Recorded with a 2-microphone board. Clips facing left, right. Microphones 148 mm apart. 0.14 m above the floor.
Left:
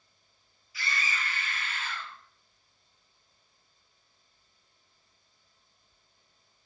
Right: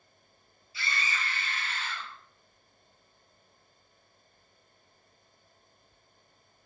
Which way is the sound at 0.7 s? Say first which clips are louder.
Even; 30° right (ahead or behind).